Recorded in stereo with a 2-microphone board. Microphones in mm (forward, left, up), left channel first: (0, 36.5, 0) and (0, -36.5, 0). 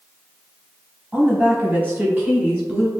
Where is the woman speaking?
20° right (ahead or behind), 1.1 m.